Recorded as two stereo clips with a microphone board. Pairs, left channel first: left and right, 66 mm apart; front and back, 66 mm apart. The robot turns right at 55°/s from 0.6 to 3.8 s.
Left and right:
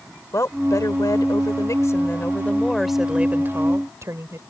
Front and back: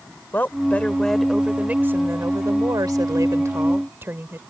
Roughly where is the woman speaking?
Ahead left.